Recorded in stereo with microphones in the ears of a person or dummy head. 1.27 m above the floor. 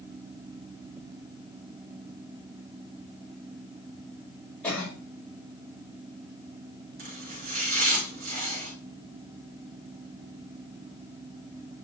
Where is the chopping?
55° right (ahead or behind), 2.5 m.